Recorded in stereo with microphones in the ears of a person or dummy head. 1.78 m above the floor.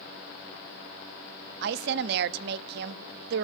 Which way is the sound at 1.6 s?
65° right (ahead or behind).